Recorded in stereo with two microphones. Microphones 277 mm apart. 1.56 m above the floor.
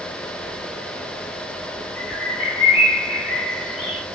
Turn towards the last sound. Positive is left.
turn(degrees=45)  # may be behind; listen again after turning